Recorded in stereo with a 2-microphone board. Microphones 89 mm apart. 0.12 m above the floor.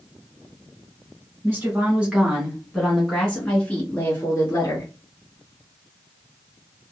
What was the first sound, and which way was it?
A woman speaking, 20° right (ahead or behind).